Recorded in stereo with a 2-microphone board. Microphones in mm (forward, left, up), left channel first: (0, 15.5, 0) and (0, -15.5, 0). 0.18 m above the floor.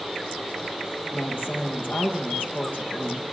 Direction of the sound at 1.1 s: 70° left (ahead or behind).